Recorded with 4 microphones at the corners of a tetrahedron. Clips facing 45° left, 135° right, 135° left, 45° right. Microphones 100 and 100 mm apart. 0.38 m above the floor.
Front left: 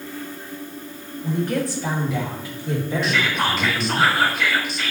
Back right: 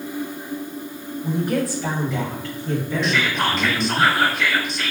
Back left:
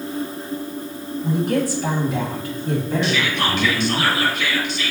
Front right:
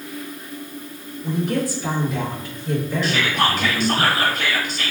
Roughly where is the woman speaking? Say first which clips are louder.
Back right 1 dB, back left 2 dB; behind left.